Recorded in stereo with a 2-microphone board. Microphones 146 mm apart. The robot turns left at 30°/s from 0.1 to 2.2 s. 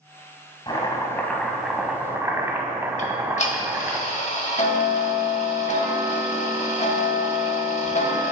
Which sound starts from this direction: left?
Ticking, at 3.0 s.